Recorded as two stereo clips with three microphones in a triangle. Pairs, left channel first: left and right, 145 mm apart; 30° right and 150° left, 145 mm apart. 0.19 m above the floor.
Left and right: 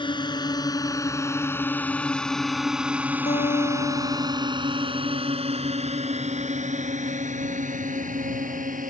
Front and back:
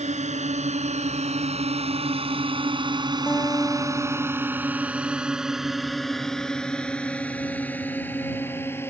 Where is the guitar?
45° left.